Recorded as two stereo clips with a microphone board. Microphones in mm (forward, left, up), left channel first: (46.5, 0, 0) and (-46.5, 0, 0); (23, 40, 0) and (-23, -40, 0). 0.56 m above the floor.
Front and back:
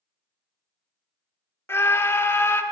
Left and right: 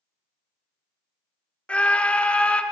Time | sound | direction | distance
1.7 | a scream | straight ahead | 0.7 m